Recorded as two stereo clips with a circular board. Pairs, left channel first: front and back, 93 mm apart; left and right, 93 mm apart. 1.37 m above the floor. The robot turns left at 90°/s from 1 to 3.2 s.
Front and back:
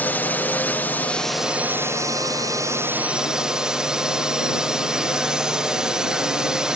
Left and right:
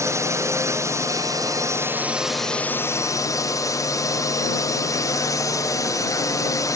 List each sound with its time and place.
0.0 s a drone: 60° right; by 6.8 s 105° left